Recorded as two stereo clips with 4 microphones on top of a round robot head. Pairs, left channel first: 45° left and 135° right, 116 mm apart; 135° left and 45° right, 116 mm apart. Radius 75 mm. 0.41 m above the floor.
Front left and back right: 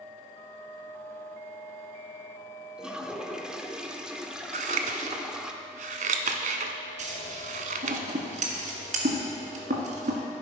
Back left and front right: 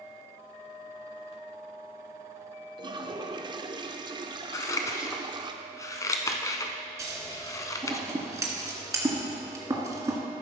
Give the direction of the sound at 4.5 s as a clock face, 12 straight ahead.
5 o'clock.